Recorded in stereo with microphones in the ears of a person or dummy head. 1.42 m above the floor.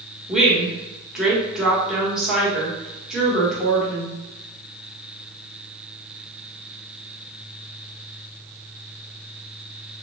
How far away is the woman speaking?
About 1.6 m.